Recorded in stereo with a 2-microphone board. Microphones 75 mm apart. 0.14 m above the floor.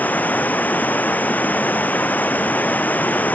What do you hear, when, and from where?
0.0 s running water: 20° left (ahead or behind)